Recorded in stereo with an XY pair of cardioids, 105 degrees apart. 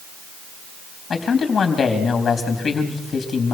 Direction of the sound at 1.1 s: 40° left.